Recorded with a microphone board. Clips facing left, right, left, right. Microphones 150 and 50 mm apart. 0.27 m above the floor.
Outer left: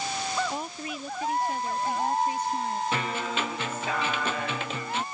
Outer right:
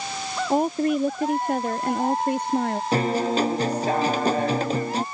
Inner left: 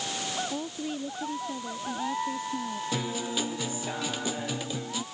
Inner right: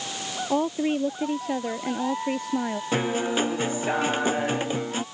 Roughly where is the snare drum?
No snare drum in this recording.